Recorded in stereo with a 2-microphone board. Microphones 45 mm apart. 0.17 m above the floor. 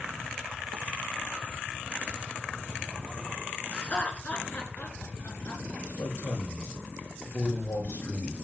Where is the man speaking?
80° left, 10 m.